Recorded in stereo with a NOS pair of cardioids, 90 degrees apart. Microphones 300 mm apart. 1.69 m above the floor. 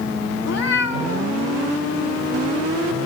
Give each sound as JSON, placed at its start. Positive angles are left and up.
{"t": 0.4, "sound": "a cat meowing", "azimuth_deg": 60, "distance_m": 2.5}